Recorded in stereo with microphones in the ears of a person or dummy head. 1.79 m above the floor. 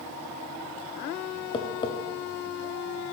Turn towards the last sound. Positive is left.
turn(degrees=25)  # may be behind; listen again after turning